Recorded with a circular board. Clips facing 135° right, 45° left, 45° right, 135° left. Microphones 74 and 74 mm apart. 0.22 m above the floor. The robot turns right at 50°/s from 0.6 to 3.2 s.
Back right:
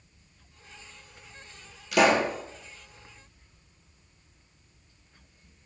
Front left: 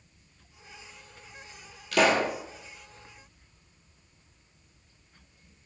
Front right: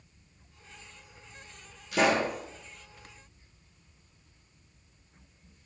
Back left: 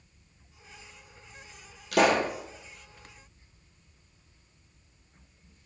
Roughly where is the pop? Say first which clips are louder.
Back right 2 dB, back left 2 dB; behind left.